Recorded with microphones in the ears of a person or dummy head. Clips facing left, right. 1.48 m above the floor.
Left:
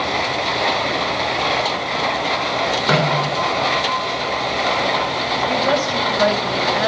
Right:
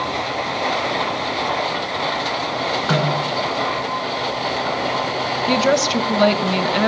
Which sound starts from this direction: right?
A woman speaking, at 5.5 s.